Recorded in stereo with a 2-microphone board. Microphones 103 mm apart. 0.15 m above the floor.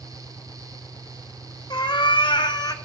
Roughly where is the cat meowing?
Left.